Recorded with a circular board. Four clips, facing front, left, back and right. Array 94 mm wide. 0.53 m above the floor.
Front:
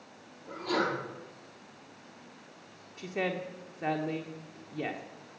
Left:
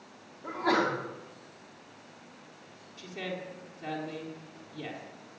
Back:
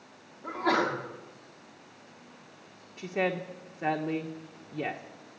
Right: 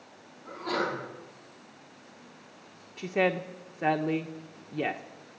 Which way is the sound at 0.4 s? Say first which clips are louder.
Left 4 dB, back 4 dB; 140° left.